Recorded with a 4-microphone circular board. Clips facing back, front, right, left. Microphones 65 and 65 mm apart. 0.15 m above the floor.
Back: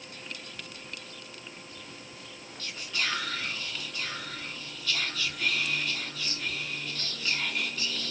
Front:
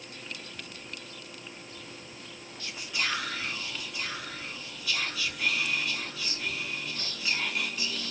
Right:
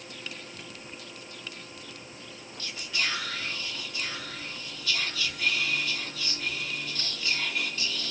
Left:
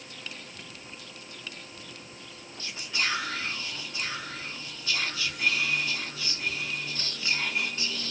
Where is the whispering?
70° left, 1.1 m.